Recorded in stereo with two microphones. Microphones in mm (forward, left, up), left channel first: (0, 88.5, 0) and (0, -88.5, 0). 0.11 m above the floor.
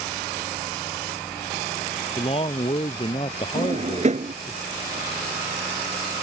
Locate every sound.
2.2 s a man speaking: 30° left (ahead or behind)
3.5 s a drawer: 40° right (ahead or behind)